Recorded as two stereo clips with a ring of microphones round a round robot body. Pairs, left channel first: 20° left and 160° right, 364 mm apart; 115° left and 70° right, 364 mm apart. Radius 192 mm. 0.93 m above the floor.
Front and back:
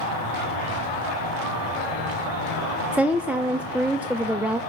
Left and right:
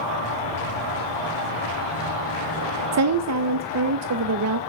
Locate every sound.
0.0 s an insect: 75° left, 3.5 m
2.9 s a woman speaking: 75° right, 0.5 m